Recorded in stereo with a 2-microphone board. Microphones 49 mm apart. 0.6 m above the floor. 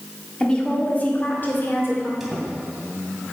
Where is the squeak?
5° right (ahead or behind), 2.5 m.